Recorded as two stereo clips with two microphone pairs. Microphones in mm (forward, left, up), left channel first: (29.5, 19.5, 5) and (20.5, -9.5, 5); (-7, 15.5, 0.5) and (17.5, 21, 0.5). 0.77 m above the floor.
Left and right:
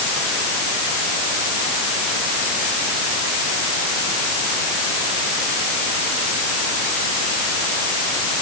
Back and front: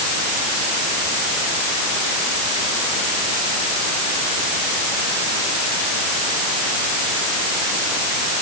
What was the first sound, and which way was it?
Only background noise.